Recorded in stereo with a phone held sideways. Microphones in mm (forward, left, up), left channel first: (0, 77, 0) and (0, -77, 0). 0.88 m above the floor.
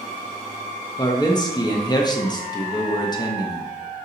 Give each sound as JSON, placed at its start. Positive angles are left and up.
{"t": 1.0, "sound": "a man speaking", "side_deg": 25, "distance_m": 0.7}